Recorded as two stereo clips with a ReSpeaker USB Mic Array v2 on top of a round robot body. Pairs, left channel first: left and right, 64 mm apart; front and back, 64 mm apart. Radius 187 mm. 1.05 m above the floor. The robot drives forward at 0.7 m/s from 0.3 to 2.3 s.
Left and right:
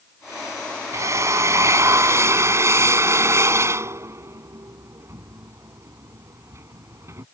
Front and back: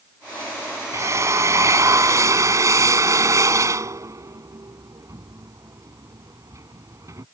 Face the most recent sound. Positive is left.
turn(degrees=-140)